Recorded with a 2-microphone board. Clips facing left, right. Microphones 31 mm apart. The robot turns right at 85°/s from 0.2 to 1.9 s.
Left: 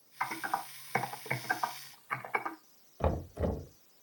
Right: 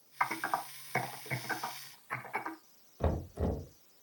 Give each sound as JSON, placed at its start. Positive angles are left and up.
{"t": 0.2, "sound": "typing on a keyboard", "side_deg": -35, "distance_m": 1.9}
{"t": 3.0, "sound": "knocking", "side_deg": 50, "distance_m": 1.3}